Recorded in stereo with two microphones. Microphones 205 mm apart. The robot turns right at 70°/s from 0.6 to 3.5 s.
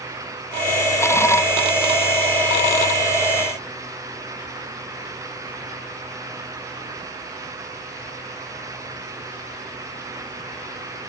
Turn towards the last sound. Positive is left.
No sound to turn to.